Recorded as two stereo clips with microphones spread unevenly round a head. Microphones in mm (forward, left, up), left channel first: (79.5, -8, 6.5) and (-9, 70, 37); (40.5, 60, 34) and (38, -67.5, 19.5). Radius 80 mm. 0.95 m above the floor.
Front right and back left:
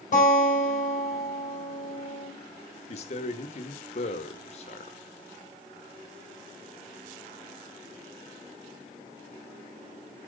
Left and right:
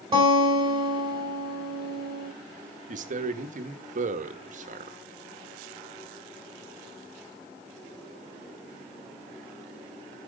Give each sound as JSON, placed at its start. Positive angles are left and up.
{"t": 0.1, "sound": "a guitar", "azimuth_deg": -35, "distance_m": 5.0}
{"t": 2.9, "sound": "a man speaking", "azimuth_deg": -75, "distance_m": 1.0}